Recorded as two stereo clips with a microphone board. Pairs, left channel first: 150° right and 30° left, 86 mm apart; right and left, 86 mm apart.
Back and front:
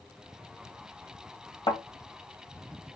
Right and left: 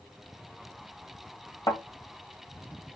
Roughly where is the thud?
Behind right.